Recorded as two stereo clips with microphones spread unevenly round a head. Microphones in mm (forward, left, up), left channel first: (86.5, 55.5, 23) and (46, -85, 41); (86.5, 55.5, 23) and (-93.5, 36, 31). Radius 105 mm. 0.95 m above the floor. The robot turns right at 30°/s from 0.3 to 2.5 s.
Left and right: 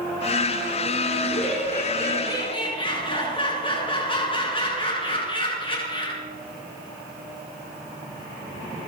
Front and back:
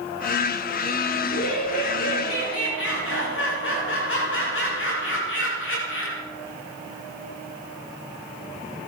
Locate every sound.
1.2 s laughter: 20° right, 7.5 m; by 6.2 s 20° left, 7.5 m